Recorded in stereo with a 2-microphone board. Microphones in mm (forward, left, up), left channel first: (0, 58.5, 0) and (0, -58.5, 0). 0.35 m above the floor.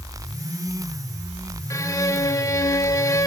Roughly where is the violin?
Left.